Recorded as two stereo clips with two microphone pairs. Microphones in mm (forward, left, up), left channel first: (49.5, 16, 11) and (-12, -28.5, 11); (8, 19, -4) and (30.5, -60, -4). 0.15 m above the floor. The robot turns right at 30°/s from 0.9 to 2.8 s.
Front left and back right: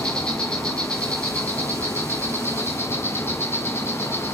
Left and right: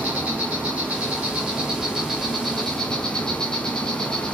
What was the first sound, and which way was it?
An insect, 15° right.